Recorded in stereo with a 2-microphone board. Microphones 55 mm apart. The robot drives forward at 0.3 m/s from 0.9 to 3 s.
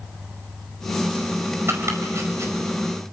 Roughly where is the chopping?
Right.